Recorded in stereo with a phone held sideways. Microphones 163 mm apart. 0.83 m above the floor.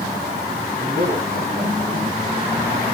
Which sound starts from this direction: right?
A man speaking, at 0.8 s.